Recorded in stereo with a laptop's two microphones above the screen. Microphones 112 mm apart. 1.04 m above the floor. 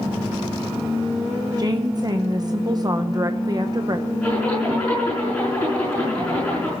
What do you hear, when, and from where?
1.6 s a woman speaking: 35° right (ahead or behind), 0.8 m
4.2 s a zipper: 10° left (ahead or behind), 7 m